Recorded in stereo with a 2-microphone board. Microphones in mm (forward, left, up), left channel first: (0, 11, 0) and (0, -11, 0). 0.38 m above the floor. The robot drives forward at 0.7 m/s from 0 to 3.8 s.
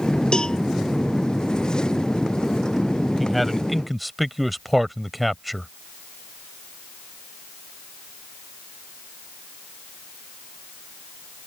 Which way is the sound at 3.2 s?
Centre (ahead or behind).